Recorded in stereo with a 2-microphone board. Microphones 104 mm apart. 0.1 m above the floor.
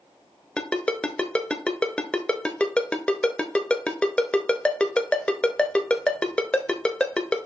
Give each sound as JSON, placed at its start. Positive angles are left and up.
{"t": 0.6, "sound": "a ringtone", "side_deg": 10, "distance_m": 0.8}